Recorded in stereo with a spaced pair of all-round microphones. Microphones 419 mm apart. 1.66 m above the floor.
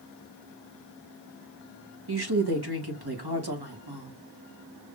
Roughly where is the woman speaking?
Right.